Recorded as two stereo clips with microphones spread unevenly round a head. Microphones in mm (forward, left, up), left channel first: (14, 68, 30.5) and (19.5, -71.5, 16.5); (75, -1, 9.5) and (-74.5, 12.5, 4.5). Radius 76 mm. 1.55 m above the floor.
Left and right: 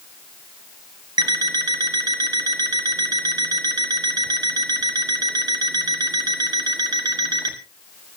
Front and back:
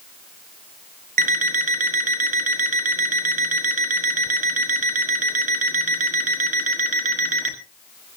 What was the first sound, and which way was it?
An alarm clock, 155° right.